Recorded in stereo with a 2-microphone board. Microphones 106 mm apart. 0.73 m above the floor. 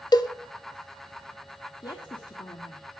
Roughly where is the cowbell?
Left.